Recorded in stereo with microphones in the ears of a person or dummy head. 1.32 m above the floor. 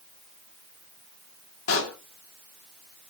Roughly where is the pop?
Left.